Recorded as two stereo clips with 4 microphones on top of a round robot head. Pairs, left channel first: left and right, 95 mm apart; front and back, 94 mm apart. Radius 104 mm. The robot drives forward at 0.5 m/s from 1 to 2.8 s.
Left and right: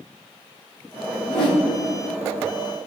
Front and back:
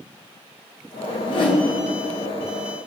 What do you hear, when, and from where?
1.2 s a whoosh: 35° left, 2.0 m; by 1.7 s 40° left, 1.8 m